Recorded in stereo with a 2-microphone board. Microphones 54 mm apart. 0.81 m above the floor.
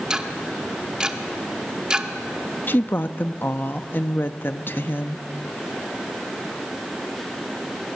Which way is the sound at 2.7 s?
40° left (ahead or behind).